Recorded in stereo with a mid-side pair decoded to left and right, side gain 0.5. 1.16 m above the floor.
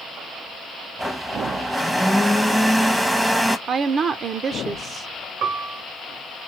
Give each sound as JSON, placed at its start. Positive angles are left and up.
{"t": 1.0, "sound": "a blender", "azimuth_deg": -5, "distance_m": 0.8}
{"t": 3.7, "sound": "a woman speaking", "azimuth_deg": -45, "distance_m": 0.7}
{"t": 5.4, "sound": "a piano", "azimuth_deg": -60, "distance_m": 0.8}